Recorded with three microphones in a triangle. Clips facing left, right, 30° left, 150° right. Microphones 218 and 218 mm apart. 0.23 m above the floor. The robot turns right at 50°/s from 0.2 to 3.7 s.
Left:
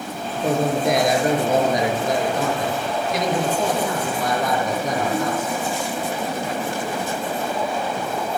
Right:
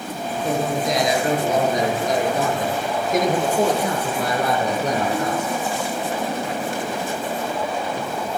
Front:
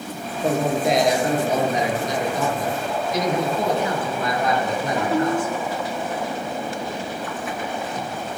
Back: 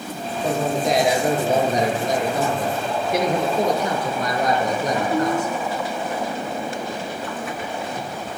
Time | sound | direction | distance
0.3 | a man speaking | 90° left | 5 m